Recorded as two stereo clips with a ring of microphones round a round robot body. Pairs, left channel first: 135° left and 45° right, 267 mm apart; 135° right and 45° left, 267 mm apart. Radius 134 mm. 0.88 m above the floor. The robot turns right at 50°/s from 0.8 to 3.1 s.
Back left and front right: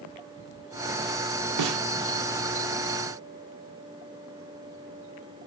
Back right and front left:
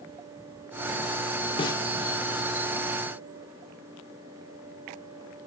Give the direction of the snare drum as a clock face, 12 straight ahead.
2 o'clock.